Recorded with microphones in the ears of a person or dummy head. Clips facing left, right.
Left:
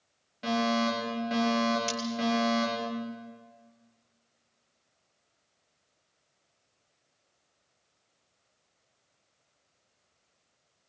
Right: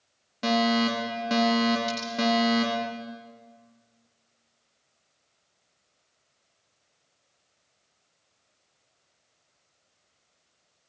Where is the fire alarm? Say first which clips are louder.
Right 4 dB; 60° right (ahead or behind), 5.5 m.